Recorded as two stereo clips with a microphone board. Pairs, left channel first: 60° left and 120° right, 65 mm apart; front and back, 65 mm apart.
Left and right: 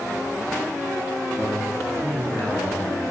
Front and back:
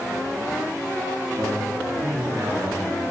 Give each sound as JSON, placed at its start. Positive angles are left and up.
{"t": 1.4, "sound": "a man speaking", "azimuth_deg": -165, "distance_m": 6.5}